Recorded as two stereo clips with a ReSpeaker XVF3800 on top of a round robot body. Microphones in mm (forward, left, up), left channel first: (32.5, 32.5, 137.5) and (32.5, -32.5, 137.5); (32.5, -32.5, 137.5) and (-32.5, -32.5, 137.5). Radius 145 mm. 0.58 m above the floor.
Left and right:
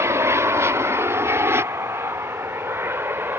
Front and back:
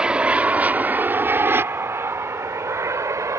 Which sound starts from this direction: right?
An aircraft, at 0.0 s.